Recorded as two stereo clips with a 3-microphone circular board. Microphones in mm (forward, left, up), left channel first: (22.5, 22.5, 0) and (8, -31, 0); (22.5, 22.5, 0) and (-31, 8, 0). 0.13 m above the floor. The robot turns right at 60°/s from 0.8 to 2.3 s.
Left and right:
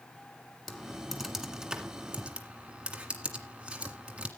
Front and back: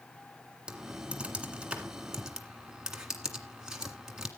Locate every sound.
0.7 s typing on a keyboard: 160° left, 1.7 m; by 4.3 s 110° right, 1.7 m